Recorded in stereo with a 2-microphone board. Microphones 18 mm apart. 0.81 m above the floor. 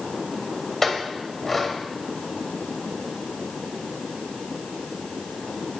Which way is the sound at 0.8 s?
10° left (ahead or behind).